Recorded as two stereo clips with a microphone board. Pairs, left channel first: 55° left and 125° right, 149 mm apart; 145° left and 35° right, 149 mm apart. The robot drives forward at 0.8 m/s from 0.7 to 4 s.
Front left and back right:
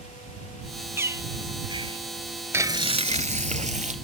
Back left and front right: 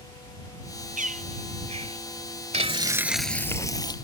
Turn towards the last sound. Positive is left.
turn(degrees=-155)